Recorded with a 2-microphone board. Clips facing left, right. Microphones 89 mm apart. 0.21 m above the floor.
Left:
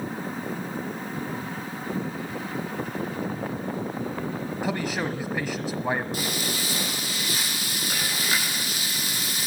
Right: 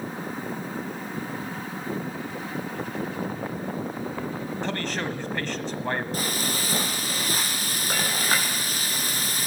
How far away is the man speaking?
About 1.1 m.